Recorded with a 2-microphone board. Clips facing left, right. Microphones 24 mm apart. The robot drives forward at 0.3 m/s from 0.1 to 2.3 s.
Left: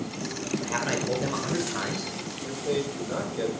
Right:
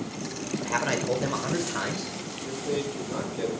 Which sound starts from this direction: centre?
A man speaking, at 0.6 s.